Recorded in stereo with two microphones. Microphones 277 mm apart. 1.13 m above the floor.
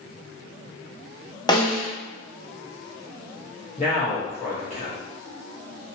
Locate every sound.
1.5 s a snare drum: 15° left (ahead or behind), 0.7 m
3.8 s a man speaking: 25° left (ahead or behind), 1.1 m